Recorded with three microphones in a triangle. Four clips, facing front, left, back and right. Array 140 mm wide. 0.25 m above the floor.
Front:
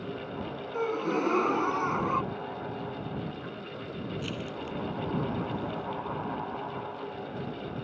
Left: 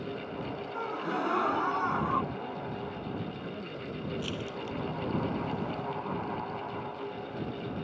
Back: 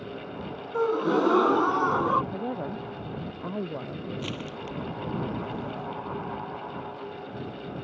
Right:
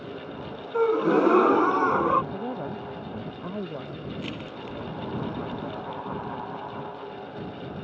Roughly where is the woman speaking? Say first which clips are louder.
Right 5 dB, back 4 dB; behind right.